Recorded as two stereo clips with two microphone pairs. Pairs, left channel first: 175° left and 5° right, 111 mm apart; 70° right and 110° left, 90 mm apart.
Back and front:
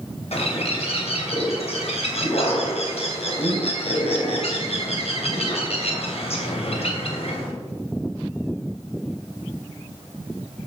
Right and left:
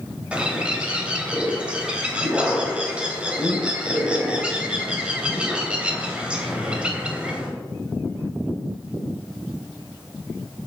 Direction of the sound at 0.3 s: 175° right.